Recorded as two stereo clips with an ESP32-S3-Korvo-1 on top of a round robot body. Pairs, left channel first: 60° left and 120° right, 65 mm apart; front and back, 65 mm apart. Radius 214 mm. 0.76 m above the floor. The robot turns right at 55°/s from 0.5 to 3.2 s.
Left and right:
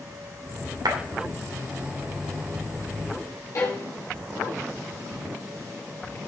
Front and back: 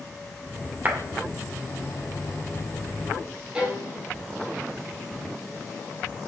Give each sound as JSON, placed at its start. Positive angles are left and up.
{"t": 0.8, "sound": "a clap", "azimuth_deg": -115, "distance_m": 2.0}
{"t": 3.5, "sound": "a violin", "azimuth_deg": 100, "distance_m": 3.0}